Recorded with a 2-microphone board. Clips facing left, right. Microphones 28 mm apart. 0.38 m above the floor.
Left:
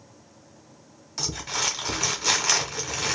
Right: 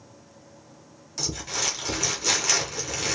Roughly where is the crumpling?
Centre.